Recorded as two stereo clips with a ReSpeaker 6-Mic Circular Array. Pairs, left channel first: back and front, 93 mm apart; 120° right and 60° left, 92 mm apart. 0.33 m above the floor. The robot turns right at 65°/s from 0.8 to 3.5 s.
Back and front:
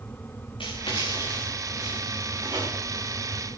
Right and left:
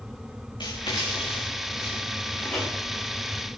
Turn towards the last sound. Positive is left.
turn(degrees=20)